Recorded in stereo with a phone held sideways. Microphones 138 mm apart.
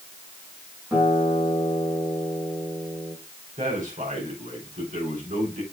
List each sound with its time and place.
0.9 s a guitar: 15° right (ahead or behind), 6 m
3.6 s a man speaking: 65° right (ahead or behind), 4 m